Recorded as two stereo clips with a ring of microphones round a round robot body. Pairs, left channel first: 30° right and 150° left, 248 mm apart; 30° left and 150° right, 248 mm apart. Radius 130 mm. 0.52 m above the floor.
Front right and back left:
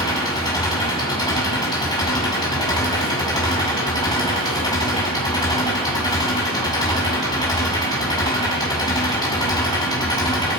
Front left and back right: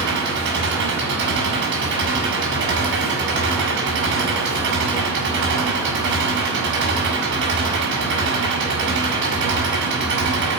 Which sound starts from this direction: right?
An engine running, at 0.0 s.